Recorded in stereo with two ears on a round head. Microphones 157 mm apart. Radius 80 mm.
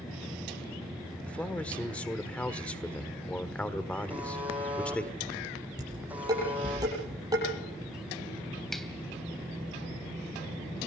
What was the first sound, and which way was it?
A man speaking, 10° left (ahead or behind).